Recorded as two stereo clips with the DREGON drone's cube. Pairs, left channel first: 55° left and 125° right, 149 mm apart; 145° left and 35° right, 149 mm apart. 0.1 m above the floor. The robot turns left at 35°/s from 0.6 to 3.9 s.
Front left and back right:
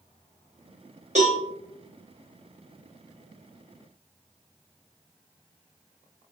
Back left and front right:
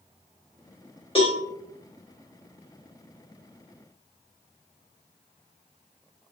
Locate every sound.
1.1 s a cowbell: 165° right, 1.9 m; by 1.4 s 170° right, 1.9 m